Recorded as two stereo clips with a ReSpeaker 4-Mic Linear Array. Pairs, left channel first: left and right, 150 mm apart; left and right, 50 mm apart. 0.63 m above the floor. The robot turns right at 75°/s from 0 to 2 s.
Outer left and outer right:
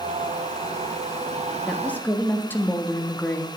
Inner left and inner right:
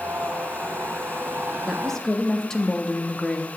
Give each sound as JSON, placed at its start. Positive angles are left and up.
{"t": 1.7, "sound": "a woman speaking", "side_deg": 0, "distance_m": 0.5}